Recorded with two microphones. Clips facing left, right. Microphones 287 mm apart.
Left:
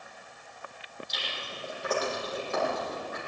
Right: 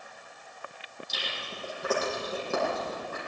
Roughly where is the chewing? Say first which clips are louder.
Right 2 dB; right.